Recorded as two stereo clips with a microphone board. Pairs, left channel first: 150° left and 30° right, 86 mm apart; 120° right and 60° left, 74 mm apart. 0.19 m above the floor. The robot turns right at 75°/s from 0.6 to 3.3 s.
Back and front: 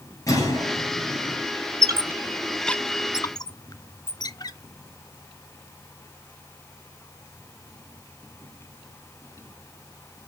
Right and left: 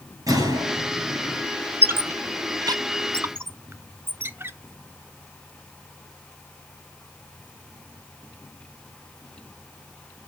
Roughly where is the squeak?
Ahead.